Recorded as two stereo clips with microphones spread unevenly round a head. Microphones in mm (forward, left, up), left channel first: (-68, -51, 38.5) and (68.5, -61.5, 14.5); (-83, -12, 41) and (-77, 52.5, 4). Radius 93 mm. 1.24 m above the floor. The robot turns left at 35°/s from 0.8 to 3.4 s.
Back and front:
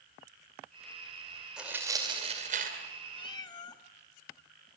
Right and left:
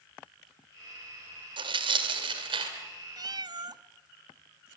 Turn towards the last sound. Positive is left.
turn(degrees=125)